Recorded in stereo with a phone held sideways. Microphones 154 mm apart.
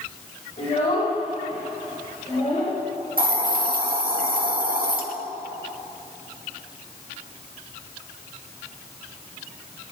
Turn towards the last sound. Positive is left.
turn(degrees=-70)  # may be behind; listen again after turning